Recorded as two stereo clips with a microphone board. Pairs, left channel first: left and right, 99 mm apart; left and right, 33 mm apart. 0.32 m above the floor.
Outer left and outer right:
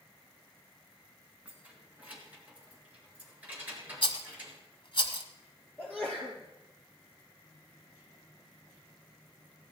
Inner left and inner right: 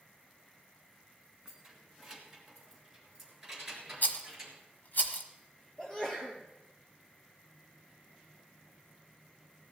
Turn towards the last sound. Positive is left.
turn(degrees=20)  # may be behind; listen again after turning